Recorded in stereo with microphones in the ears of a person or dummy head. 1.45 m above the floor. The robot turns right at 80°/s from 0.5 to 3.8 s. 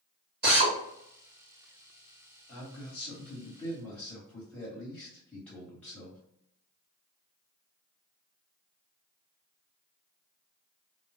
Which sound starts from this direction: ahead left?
A man speaking, at 2.5 s.